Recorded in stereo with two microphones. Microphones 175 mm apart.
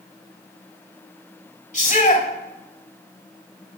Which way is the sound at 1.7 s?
40° left (ahead or behind).